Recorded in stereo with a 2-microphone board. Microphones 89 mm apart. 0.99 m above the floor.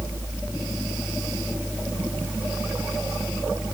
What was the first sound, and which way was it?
Only background noise.